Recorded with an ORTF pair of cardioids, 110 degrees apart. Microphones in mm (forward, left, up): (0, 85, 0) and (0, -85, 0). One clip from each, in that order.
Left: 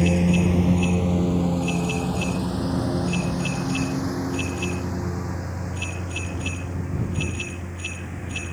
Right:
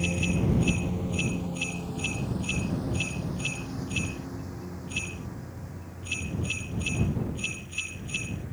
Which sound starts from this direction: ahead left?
A lawn mower, at 0.0 s.